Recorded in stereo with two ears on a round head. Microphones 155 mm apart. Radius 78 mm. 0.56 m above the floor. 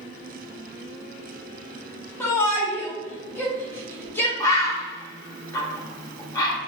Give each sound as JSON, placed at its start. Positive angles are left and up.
{"t": 2.2, "sound": "a shout", "side_deg": 15, "distance_m": 0.9}
{"t": 4.4, "sound": "a bird", "side_deg": 20, "distance_m": 0.8}